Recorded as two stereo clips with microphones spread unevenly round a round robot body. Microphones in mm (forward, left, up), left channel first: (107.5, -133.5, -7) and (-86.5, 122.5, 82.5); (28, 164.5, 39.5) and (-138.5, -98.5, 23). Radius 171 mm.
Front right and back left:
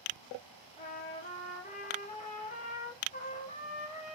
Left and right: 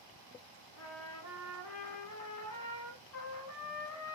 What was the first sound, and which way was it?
A trumpet, 25° left.